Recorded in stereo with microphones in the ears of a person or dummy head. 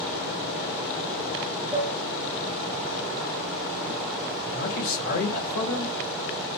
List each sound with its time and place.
1.7 s dishes clattering: 15° left (ahead or behind), 1.7 m
4.5 s a man speaking: 45° left (ahead or behind), 1.9 m